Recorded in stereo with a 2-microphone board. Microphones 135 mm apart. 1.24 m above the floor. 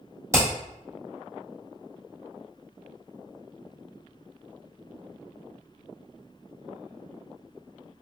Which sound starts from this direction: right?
Hammering, at 0.3 s.